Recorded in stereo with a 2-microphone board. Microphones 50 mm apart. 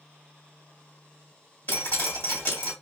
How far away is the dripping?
About 2.5 m.